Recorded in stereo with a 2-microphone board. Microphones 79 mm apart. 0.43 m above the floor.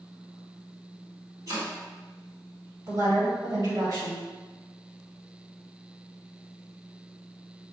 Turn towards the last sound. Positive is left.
turn(degrees=-55)  # may be behind; listen again after turning